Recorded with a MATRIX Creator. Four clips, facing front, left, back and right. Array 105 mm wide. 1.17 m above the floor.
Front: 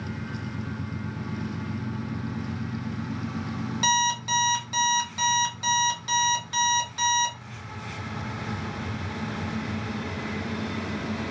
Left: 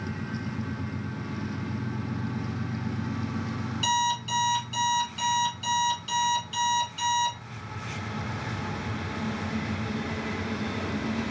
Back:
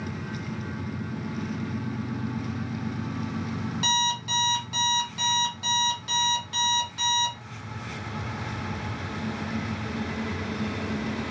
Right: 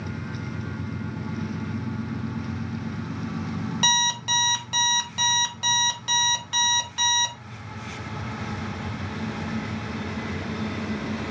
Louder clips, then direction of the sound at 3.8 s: Left 2 dB, front 4 dB; 75° right.